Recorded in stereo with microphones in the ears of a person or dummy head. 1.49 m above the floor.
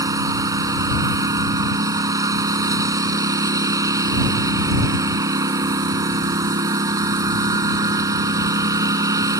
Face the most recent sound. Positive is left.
turn(degrees=-20)  # may be behind; listen again after turning